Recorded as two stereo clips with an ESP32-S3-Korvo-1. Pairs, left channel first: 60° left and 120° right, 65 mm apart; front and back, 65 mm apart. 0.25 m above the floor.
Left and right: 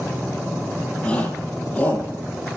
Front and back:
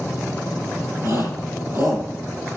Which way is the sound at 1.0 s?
135° left.